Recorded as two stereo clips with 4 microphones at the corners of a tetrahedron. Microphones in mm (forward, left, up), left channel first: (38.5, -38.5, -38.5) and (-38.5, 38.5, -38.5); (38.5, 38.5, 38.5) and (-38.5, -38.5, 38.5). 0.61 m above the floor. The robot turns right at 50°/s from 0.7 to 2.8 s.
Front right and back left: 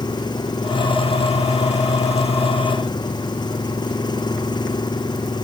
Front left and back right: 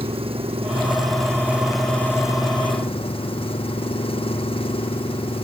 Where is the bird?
No bird in this recording.